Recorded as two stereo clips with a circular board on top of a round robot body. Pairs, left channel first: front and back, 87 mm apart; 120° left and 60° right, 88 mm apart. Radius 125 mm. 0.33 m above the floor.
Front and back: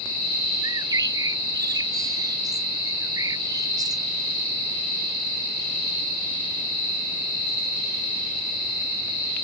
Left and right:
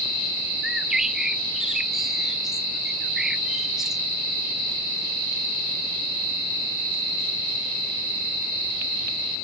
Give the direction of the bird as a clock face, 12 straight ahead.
5 o'clock.